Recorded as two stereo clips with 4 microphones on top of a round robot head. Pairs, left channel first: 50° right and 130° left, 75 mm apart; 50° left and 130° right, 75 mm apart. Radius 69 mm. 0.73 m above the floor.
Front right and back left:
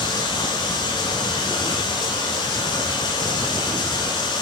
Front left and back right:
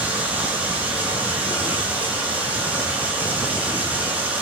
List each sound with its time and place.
0.0 s running water: 60° right, 9 m